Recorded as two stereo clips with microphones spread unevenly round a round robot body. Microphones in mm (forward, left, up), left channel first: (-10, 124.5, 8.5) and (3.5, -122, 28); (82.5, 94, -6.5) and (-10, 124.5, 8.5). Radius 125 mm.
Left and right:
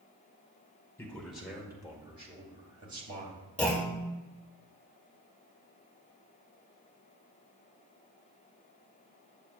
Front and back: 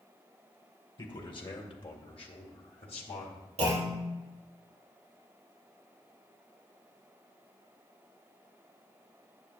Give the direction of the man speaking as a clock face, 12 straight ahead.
12 o'clock.